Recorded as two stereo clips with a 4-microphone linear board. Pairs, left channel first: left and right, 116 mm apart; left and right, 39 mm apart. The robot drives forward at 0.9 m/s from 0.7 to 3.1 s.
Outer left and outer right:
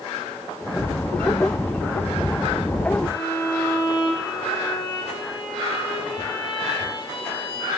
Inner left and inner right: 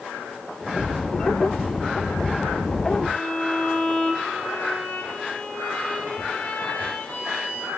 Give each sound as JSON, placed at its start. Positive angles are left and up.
{"t": 3.1, "sound": "a violin", "side_deg": 45, "distance_m": 3.5}